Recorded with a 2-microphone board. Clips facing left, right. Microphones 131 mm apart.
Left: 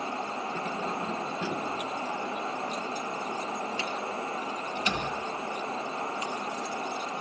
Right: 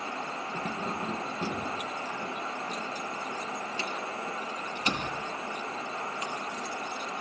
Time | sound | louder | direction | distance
0.5 | keys jangling | even | 40° right (ahead or behind) | 1.6 m